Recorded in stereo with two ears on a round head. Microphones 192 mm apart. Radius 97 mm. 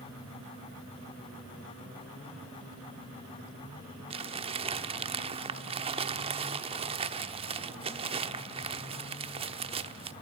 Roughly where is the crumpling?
Right.